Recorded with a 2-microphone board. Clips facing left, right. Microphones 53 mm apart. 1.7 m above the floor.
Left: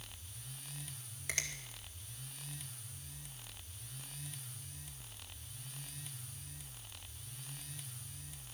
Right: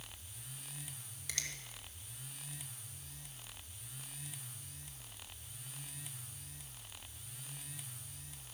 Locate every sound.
1.3 s a finger snap: 35° left (ahead or behind), 2.5 m